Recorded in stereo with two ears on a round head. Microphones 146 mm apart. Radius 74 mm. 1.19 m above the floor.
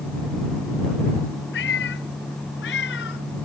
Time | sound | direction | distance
1.5 | a cat meowing | 80° left | ?